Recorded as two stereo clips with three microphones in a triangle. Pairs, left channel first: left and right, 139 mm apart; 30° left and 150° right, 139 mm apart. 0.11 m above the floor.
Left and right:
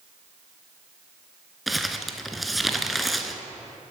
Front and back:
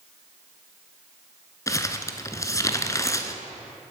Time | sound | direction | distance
1.7 | crumpling | straight ahead | 0.7 m